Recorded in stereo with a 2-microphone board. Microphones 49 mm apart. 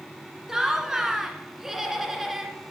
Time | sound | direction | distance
0.5 | laughter | 10° right (ahead or behind) | 1.3 m